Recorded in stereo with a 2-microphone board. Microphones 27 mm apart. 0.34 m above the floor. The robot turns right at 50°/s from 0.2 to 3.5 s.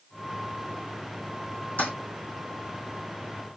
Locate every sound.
1.8 s a toilet flushing: 85° left, 2.5 m